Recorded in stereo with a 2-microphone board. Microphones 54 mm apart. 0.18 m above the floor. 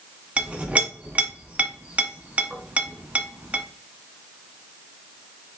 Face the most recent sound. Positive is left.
turn(degrees=-25)  # may be behind; listen again after turning